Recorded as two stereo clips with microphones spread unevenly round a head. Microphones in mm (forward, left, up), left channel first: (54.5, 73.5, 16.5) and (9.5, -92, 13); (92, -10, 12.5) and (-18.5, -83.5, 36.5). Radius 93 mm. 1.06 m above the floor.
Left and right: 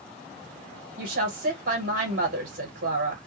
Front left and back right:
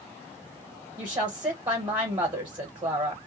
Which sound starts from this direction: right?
A woman speaking, at 1.0 s.